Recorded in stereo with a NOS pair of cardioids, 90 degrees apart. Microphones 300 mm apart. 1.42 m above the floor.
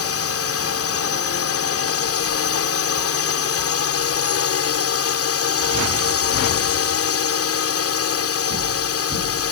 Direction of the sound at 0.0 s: 50° left.